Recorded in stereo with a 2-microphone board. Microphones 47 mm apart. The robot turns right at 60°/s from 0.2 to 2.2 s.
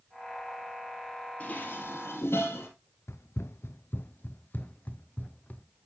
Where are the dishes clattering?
30° left (ahead or behind), 2 m; by 2.7 s 65° left (ahead or behind), 2 m.